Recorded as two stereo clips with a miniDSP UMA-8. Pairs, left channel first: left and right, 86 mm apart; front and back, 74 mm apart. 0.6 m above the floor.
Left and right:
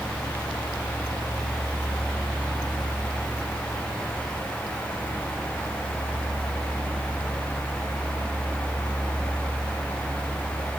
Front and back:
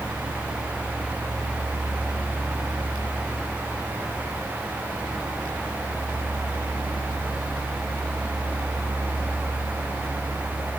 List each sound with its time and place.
Only background noise.